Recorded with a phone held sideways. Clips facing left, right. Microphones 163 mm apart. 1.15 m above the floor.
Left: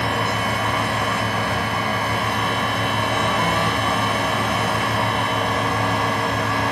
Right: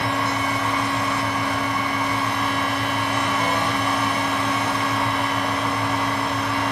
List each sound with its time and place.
0.0 s a fan: 60° left (ahead or behind), 0.7 m